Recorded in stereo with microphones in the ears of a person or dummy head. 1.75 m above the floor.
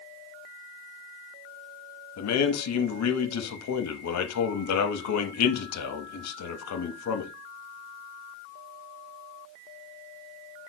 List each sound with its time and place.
2.2 s a man speaking: 85° left, 0.7 m